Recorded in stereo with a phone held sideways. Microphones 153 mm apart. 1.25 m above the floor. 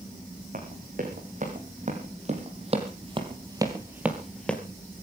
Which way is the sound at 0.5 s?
60° right (ahead or behind).